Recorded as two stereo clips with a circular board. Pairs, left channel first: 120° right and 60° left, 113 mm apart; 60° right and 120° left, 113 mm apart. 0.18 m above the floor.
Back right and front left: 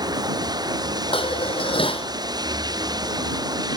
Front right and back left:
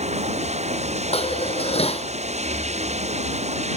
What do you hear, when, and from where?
0.0 s running water: 115° left
1.1 s dishes clattering: 85° right